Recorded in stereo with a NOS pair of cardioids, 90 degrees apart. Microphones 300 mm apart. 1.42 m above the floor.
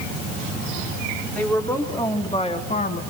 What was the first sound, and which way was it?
A woman speaking, 5° left.